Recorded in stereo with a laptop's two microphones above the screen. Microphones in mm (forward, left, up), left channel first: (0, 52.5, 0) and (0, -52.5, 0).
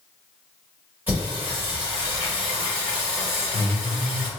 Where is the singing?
15° right (ahead or behind), 1.8 m.